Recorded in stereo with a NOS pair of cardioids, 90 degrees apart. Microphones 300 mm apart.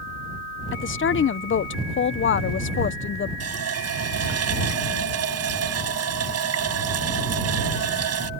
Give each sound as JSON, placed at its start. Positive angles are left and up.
{"t": 0.7, "sound": "a woman speaking", "azimuth_deg": 45}
{"t": 3.4, "sound": "a running tap", "azimuth_deg": -55}